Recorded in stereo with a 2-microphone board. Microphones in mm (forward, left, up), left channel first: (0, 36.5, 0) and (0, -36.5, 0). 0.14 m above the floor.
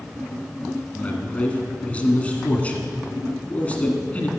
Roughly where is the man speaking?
Centre.